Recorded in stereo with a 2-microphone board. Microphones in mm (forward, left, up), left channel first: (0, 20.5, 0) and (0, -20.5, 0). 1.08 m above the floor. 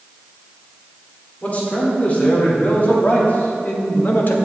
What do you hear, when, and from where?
1.4 s a man speaking: 35° left (ahead or behind), 2.5 m; by 4.3 s 50° left (ahead or behind), 1.1 m